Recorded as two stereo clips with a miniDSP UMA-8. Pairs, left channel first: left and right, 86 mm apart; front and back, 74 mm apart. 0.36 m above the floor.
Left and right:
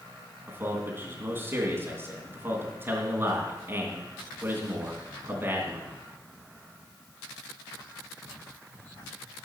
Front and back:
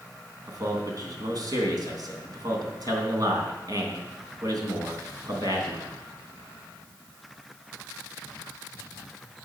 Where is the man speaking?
150° right, 3 m.